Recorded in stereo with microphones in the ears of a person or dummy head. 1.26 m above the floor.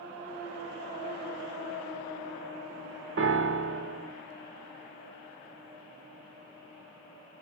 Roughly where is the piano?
Right.